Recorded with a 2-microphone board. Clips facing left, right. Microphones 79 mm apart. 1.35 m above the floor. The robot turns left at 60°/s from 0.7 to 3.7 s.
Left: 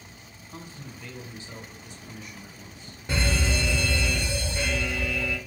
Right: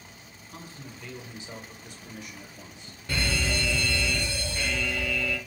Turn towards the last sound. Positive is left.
turn(degrees=20)  # may be behind; listen again after turning